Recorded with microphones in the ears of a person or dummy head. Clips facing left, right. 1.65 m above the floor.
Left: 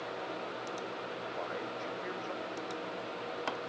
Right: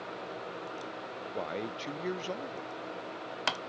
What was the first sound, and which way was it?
A man speaking, 40° right (ahead or behind).